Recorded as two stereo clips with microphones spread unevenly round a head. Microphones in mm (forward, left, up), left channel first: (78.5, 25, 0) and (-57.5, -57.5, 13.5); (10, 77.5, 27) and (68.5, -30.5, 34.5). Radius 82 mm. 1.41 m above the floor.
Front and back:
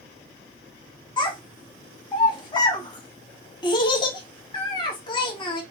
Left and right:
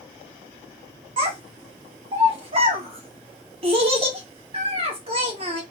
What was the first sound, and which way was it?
A child speaking, 30° right.